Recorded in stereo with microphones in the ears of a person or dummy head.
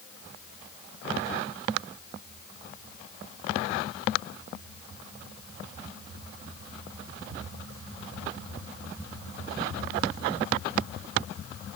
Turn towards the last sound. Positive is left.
No sound to turn to.